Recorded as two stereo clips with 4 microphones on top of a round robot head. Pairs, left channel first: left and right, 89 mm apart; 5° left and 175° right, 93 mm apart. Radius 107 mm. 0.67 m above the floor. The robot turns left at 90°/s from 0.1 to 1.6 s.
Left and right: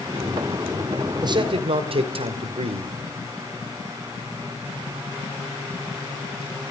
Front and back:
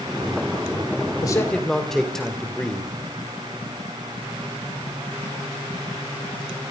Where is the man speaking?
45° right, 2.5 m; by 2.9 s 80° right, 2.5 m.